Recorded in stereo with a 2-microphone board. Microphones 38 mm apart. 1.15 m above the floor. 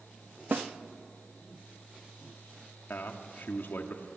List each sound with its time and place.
0.5 s a snare drum: 65° right (ahead or behind), 0.8 m
2.9 s a man speaking: 70° left (ahead or behind), 1.8 m